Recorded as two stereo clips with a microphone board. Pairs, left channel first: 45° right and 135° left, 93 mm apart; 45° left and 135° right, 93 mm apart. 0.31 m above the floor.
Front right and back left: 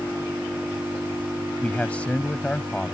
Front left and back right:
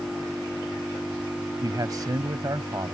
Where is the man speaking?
115° right.